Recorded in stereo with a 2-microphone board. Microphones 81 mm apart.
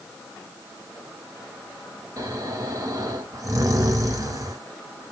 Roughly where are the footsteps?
I don't hear footsteps.